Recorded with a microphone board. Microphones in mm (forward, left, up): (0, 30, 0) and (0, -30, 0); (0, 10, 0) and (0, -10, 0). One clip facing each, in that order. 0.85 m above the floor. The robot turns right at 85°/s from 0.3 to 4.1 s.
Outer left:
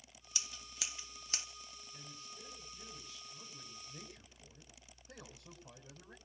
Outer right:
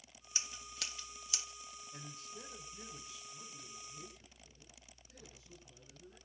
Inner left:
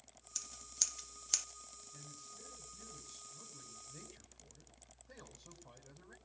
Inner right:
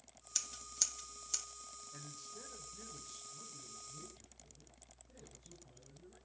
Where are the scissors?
30° right (ahead or behind), 1.7 m; by 1.5 s 50° left (ahead or behind), 1.7 m.